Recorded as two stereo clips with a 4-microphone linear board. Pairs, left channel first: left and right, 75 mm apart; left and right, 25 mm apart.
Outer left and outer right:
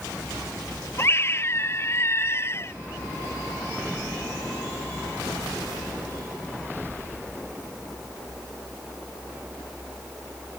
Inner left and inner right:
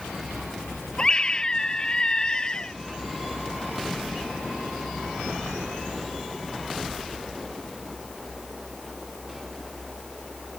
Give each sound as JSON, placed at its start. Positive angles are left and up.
{"t": 1.0, "sound": "a scream", "side_deg": 35}